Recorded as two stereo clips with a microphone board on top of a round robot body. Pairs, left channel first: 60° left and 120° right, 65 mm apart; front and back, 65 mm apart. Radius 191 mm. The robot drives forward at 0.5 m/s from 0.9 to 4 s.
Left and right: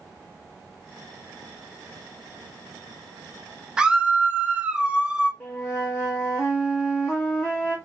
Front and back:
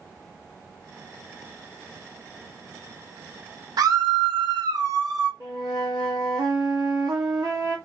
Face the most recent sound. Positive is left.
turn(degrees=140)